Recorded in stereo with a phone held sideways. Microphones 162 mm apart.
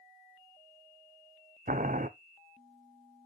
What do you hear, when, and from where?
1.7 s boiling: 55° right (ahead or behind), 0.6 m